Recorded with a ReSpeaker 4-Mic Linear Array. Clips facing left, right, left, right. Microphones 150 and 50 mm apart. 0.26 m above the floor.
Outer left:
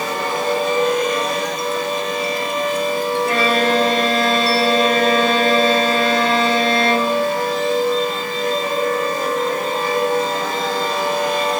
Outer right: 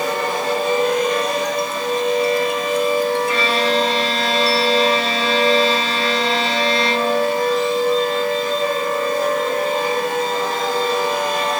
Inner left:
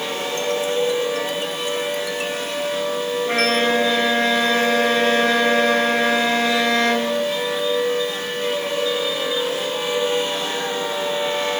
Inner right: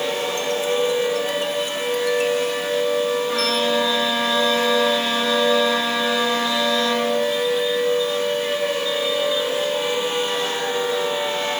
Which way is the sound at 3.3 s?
50° left (ahead or behind).